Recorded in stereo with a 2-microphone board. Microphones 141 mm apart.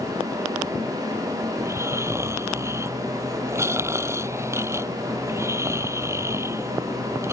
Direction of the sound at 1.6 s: 20° right (ahead or behind).